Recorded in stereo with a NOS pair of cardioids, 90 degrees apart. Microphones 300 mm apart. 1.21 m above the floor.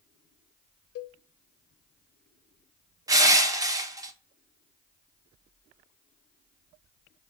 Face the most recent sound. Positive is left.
turn(degrees=-10)